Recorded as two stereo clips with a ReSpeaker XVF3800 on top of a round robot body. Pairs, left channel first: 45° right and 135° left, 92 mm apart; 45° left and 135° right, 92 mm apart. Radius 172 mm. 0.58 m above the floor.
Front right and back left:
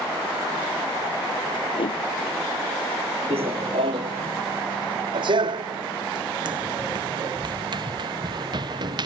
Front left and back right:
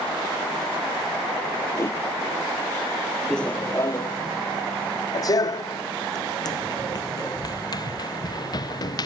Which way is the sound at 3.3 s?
130° left.